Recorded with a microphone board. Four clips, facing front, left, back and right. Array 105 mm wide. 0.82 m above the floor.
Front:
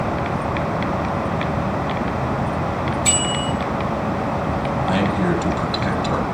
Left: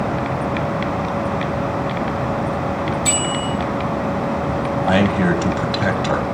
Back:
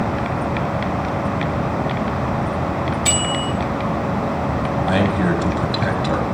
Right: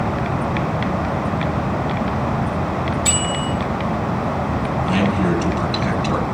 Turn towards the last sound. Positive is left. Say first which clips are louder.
# left 3 dB, back 2 dB
turn(degrees=115)